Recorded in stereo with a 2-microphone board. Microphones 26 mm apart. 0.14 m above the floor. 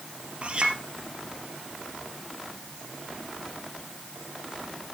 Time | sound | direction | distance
0.4 | a clink | 45° right (ahead or behind) | 2.5 m